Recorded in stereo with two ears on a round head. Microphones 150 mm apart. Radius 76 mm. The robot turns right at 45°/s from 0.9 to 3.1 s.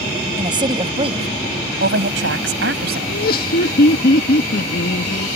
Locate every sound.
0.4 s a woman speaking: 150° right; by 3.0 s 60° right
3.1 s laughter: 55° left (ahead or behind); by 5.3 s 60° left (ahead or behind)